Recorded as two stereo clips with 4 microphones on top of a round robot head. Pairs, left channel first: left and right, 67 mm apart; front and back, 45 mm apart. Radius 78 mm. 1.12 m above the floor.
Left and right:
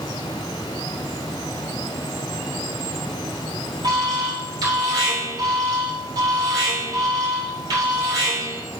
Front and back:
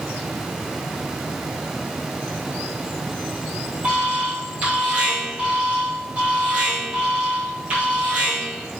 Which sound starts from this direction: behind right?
An alarm, at 3.8 s.